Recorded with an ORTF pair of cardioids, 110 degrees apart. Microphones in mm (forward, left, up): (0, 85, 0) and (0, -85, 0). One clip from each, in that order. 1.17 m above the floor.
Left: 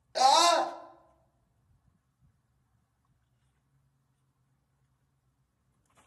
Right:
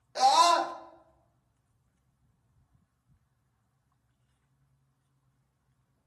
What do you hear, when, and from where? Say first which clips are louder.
0.1 s a scream: even; 20° left, 0.7 m